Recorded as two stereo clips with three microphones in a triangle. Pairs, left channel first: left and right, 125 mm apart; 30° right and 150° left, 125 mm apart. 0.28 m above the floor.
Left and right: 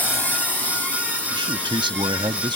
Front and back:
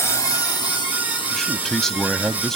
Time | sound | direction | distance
0.0 | a drone | 25° left | ?
1.3 | a man speaking | 115° right | ?